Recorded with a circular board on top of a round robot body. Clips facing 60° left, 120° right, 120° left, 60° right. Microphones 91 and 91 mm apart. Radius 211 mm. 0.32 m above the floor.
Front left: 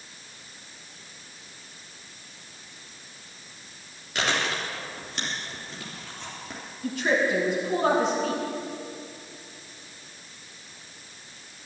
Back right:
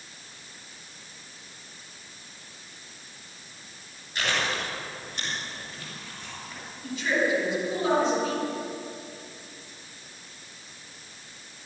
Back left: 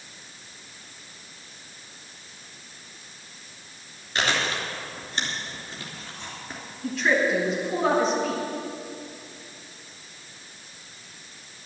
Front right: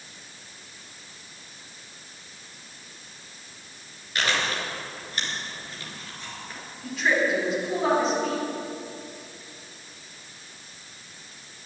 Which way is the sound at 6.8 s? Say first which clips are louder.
Front left 2 dB, back left 1 dB; 30° left.